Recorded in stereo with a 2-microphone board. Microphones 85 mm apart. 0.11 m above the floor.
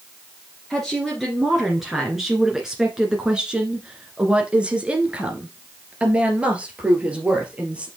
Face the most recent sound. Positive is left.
turn(degrees=-15)  # may be behind; listen again after turning